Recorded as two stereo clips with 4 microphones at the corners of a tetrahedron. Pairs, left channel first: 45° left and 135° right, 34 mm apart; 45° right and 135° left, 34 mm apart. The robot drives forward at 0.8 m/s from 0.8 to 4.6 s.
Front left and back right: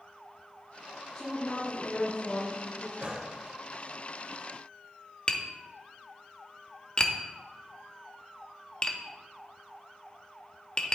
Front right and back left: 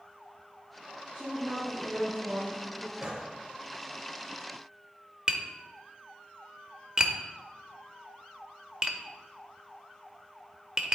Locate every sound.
1.1 s a woman speaking: 55° left, 2 m; by 2.9 s 100° left, 1.7 m
3.0 s a gunshot: 160° right, 1.7 m; by 3.3 s 165° right, 1.9 m
5.3 s tapping: 90° left, 0.7 m